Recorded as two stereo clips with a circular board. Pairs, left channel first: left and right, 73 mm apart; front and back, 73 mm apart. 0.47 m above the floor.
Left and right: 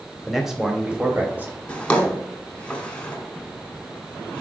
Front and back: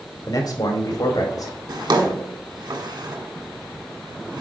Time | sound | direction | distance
0.3 | a man speaking | straight ahead | 1.4 m
1.7 | a drawer | 165° left | 1.3 m